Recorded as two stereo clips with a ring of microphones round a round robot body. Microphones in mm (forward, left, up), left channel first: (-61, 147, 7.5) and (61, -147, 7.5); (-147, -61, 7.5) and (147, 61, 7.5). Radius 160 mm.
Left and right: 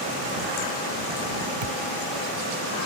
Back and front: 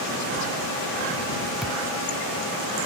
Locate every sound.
1.6 s a thud: 65° right